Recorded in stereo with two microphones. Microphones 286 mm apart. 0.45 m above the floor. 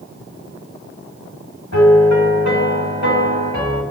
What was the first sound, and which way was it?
A piano, 75° left (ahead or behind).